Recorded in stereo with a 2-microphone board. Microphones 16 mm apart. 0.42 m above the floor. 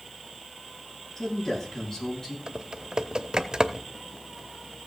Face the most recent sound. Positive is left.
turn(degrees=-50)  # may be behind; listen again after turning